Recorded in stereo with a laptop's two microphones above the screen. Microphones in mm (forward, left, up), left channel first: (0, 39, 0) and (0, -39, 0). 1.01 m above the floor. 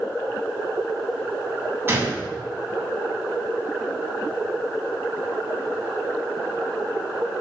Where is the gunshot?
30° right (ahead or behind), 6.5 m.